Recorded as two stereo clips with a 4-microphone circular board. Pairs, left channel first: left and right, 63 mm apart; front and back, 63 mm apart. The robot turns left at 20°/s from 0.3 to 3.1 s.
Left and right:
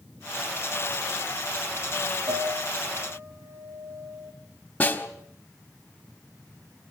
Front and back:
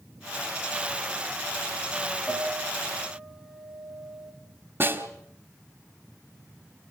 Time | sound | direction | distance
2.3 | a piano | 80° right | 2.5 m
4.8 | a snare drum | 145° left | 1.8 m